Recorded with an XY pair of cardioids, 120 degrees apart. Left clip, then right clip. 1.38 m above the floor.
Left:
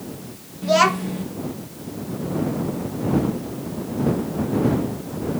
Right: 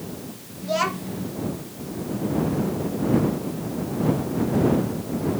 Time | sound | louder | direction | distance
0.6 | a child speaking | left 7 dB | 45° left | ?